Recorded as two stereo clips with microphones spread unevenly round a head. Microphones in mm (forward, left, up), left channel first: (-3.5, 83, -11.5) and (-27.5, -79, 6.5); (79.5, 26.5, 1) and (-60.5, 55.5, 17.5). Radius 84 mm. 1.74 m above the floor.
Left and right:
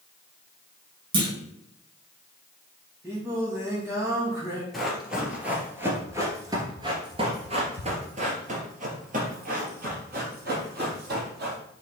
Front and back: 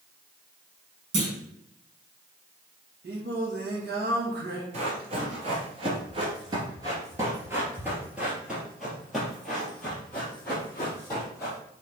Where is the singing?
170° right, 2.5 m.